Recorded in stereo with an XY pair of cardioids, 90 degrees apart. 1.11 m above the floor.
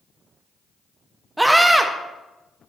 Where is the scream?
15° right, 1.2 m.